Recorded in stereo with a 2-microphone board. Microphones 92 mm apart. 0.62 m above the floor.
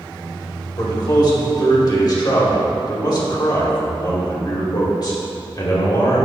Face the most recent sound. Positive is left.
turn(degrees=50)  # may be behind; listen again after turning